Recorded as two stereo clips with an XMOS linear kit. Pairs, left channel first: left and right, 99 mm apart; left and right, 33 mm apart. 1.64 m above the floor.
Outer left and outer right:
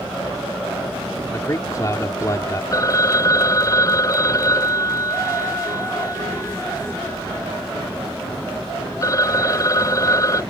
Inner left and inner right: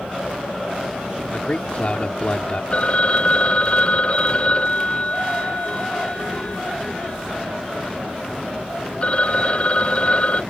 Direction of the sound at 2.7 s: 35° left (ahead or behind).